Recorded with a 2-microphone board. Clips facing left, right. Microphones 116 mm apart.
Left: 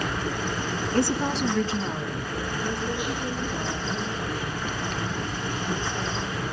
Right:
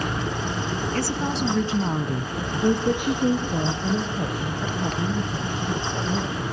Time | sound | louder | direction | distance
0.9 | a woman speaking | left 4 dB | 25° left (ahead or behind) | 1.5 m